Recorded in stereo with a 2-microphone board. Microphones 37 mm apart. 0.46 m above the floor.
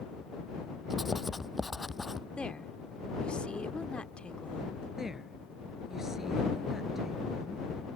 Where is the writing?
5° right (ahead or behind).